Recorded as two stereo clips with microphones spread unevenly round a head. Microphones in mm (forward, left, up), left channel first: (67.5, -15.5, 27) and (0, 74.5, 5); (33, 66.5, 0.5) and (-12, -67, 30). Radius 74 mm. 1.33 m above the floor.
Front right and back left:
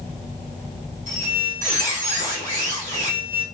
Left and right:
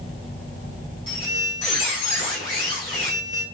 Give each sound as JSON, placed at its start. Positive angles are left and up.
{"t": 1.1, "sound": "a squeak", "azimuth_deg": 135, "distance_m": 1.6}